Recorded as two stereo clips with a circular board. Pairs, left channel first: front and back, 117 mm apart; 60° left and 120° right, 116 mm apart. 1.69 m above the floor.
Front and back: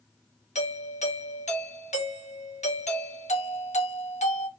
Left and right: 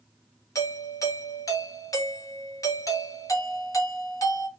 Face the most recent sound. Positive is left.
turn(degrees=0)